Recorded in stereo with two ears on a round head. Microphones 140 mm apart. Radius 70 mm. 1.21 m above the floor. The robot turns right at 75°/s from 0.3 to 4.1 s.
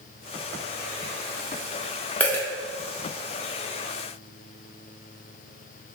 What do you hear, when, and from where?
2.2 s a dropped coin: 10° left (ahead or behind), 0.7 m; by 2.5 s 15° left (ahead or behind), 0.7 m